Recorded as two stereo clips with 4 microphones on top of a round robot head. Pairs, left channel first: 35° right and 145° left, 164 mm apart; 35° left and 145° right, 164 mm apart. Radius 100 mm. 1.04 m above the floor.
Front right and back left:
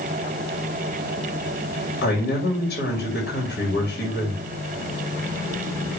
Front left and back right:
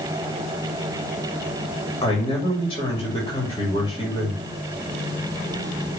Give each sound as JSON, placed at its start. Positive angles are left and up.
{"t": 2.0, "sound": "a man speaking", "azimuth_deg": -25, "distance_m": 3.0}